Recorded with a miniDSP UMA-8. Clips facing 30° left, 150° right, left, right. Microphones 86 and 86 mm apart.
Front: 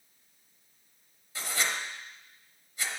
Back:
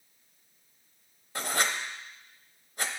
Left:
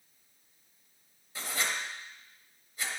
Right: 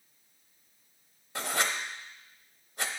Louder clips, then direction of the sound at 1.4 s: Back 3 dB, right 3 dB; 115° right.